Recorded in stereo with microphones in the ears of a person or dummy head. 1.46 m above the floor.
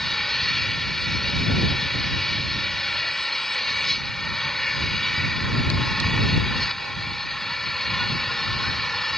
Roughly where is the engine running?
Centre.